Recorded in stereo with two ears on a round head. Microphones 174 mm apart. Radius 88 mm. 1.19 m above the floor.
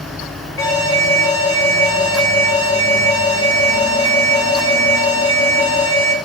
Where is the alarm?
15° left (ahead or behind), 6 m.